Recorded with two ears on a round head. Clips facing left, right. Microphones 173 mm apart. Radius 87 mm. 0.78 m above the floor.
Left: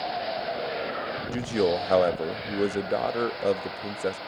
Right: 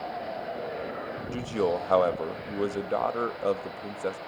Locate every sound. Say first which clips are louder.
1.3 s a man speaking: left 3 dB; 15° left (ahead or behind), 0.6 m